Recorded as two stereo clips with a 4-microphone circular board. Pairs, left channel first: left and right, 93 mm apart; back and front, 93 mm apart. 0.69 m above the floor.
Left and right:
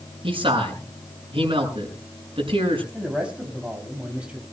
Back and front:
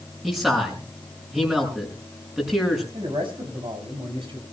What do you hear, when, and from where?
0.2 s a man speaking: 85° right, 6 m
2.9 s a man speaking: 15° right, 5 m